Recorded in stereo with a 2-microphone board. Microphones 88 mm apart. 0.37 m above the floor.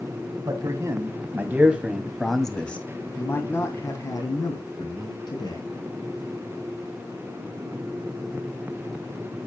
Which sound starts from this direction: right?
A man speaking, at 0.5 s.